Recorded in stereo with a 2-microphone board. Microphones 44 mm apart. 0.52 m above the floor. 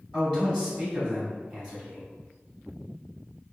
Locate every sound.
0.1 s a man speaking: 15° right (ahead or behind), 1.3 m